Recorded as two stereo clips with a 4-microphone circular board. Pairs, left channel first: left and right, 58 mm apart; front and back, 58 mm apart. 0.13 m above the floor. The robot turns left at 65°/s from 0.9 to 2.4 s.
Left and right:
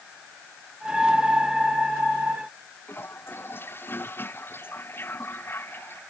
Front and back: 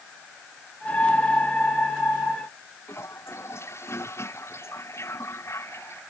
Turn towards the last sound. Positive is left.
turn(degrees=40)